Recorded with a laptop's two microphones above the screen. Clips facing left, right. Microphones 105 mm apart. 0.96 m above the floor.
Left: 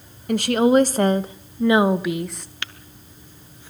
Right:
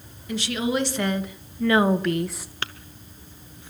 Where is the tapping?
35° right (ahead or behind), 0.7 m.